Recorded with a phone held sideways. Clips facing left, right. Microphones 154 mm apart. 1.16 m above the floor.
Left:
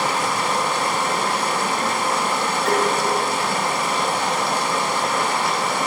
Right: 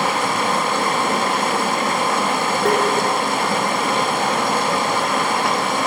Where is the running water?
55° right (ahead or behind), 1.1 m.